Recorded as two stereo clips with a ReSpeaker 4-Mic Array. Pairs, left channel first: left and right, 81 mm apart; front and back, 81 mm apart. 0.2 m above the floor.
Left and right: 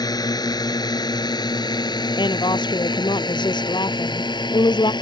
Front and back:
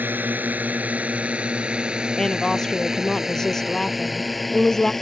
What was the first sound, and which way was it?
A drone, 115° left.